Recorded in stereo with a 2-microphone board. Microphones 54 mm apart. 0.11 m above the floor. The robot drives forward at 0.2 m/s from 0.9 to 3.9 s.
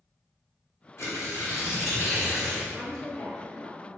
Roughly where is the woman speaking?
Centre.